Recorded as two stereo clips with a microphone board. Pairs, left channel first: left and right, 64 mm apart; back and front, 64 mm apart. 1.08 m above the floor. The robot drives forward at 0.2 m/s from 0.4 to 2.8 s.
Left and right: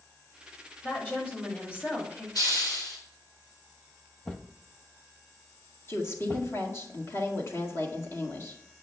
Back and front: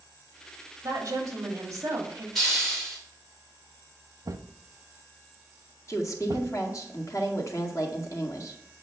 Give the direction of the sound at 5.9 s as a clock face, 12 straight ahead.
7 o'clock.